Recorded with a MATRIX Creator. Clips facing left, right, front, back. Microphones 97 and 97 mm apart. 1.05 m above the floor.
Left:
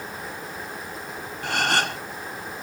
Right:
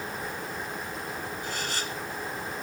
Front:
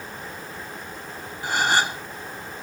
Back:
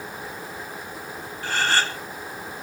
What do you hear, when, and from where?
1.4 s a gasp: 75° left